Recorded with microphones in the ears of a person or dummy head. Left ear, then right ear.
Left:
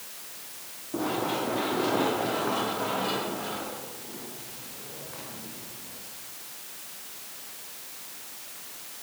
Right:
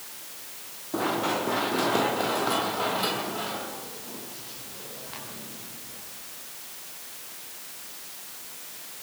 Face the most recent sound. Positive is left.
turn(degrees=-75)  # may be behind; listen again after turning